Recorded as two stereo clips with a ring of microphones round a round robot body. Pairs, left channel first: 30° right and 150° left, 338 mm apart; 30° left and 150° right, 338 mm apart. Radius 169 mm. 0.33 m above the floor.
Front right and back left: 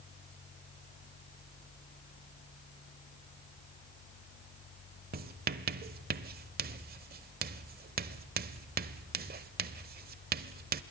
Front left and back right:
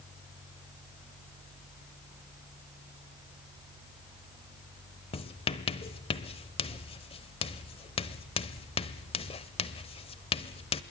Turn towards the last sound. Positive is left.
turn(degrees=100)